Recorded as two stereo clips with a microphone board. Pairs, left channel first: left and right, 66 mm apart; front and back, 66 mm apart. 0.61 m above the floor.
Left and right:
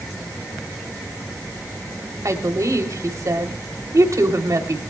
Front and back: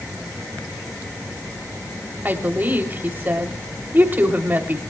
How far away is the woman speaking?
About 2.5 m.